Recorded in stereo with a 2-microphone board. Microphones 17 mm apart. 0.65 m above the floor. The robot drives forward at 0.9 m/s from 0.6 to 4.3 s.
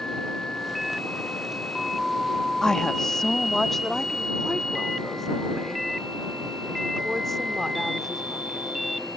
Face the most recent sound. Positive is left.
turn(degrees=10)  # may be behind; listen again after turning